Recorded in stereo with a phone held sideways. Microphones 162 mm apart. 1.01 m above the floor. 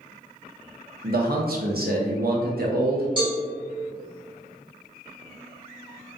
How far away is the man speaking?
About 0.6 m.